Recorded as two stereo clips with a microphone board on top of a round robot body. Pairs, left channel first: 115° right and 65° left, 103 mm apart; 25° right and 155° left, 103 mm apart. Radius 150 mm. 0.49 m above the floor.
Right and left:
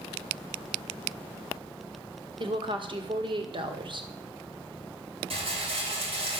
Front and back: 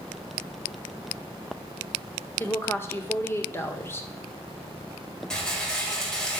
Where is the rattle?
60° left, 3.5 m.